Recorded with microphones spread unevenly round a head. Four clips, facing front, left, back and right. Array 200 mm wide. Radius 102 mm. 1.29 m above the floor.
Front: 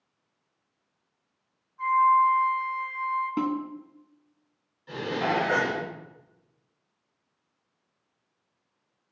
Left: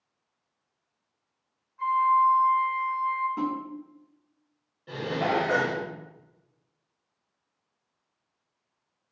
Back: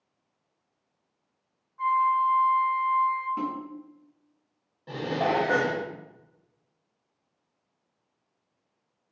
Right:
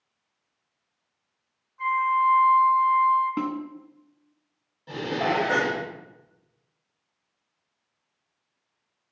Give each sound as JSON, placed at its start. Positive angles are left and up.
{"t": 1.8, "sound": "a flute", "azimuth_deg": 175, "distance_m": 2.0}
{"t": 3.4, "sound": "a snare drum", "azimuth_deg": -40, "distance_m": 1.0}
{"t": 4.9, "sound": "dishes clattering", "azimuth_deg": -170, "distance_m": 1.8}